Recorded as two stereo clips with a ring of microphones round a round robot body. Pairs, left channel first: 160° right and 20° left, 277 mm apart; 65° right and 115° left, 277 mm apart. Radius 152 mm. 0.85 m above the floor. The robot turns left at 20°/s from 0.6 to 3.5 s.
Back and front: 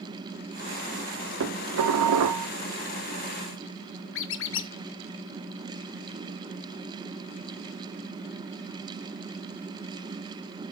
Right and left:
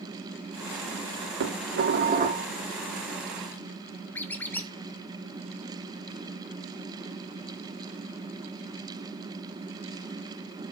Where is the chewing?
I don't hear chewing.